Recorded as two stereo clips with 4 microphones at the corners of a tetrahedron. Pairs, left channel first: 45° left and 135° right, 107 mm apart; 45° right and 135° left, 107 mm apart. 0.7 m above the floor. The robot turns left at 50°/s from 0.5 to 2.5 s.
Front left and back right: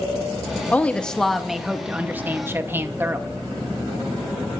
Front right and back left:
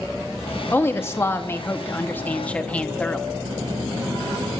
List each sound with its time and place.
0.7 s a woman speaking: 15° right, 0.8 m; by 3.3 s 100° right, 0.8 m